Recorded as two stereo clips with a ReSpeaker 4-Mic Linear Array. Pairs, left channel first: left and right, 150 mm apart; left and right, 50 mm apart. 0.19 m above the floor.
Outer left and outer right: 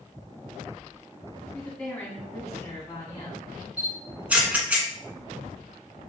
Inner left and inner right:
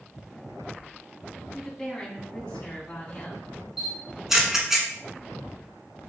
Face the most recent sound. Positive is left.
turn(degrees=-10)  # may be behind; listen again after turning